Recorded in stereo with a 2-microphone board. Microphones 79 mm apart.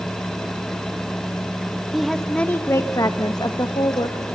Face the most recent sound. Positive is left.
turn(degrees=60)  # may be behind; listen again after turning